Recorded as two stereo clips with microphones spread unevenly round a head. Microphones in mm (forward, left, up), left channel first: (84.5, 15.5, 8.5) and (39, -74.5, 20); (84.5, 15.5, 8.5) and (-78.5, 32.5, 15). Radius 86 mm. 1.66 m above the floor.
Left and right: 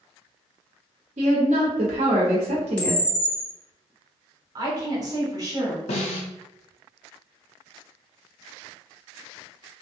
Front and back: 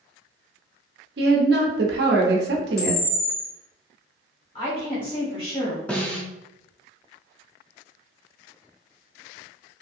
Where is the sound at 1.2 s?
155° right, 0.7 m.